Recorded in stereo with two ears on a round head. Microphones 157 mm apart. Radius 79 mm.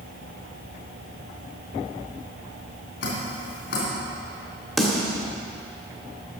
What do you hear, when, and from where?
3.0 s dripping: 75° left (ahead or behind), 3 m
4.8 s a snare drum: centre (ahead or behind), 1.5 m